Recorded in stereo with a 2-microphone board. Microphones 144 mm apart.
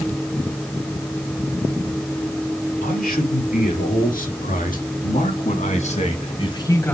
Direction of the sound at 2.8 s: 80° left.